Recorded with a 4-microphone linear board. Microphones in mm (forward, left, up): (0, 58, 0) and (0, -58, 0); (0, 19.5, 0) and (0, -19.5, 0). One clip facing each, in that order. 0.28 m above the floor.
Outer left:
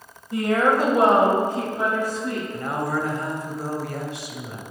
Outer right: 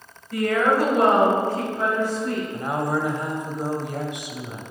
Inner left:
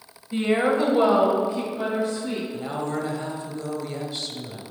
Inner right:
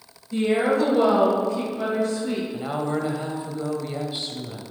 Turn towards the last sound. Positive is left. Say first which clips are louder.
# outer right 1 dB, inner right 2 dB
turn(degrees=-20)  # may be behind; listen again after turning